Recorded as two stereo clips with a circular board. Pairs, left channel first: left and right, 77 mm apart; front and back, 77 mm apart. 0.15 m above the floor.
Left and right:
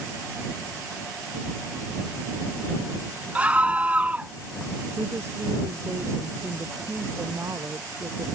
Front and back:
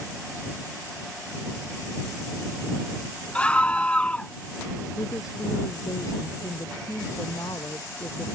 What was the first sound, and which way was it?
A scream, 45° right.